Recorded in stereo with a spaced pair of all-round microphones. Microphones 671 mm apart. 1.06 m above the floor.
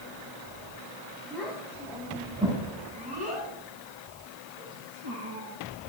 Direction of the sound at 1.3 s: 5° left (ahead or behind).